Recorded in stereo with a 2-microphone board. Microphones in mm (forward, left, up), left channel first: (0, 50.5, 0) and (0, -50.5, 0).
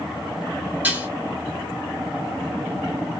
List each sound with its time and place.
0.8 s dishes clattering: 20° right (ahead or behind), 1.2 m